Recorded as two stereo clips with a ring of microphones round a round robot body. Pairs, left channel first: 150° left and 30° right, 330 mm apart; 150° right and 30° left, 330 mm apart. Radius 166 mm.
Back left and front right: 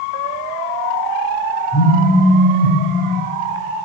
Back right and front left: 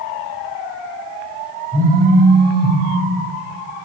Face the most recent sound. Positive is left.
turn(degrees=95)